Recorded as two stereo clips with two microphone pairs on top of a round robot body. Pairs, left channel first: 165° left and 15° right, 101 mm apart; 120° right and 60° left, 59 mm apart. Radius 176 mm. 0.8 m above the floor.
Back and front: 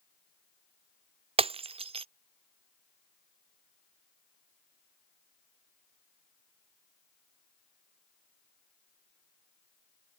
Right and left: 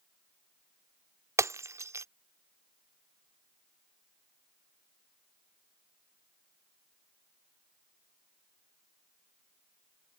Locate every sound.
1.4 s breaking glass: 15° left